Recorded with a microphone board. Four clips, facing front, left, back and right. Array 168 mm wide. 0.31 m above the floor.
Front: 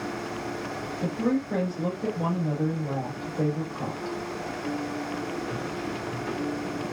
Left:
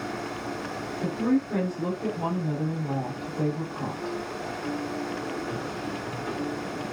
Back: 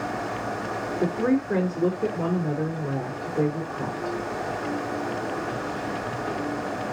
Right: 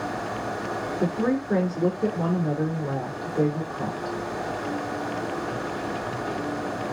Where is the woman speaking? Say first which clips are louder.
Even, back 3 dB; 140° right, 5 m.